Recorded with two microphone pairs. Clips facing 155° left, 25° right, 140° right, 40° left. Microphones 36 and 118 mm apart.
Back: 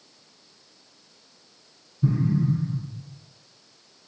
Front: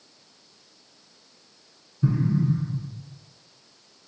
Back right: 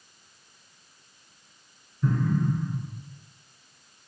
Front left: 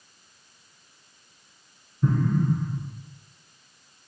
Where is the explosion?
5° left, 0.7 m.